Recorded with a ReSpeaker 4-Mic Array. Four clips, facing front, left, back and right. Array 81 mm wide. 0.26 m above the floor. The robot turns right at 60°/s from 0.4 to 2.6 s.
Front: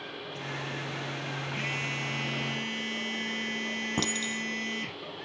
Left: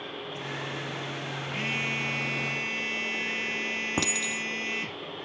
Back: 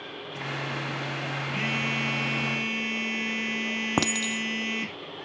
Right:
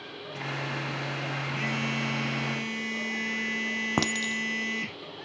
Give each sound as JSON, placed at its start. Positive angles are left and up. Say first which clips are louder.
{"t": 1.5, "sound": "a phone buzzing", "louder": "right 1 dB, back 5 dB", "azimuth_deg": 160, "distance_m": 5.0}
{"t": 4.0, "sound": "a clink", "louder": "right 3 dB, back 6 dB", "azimuth_deg": -150, "distance_m": 0.9}